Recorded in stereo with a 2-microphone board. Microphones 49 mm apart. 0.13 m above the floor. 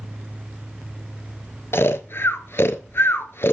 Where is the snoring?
60° left (ahead or behind), 0.6 m.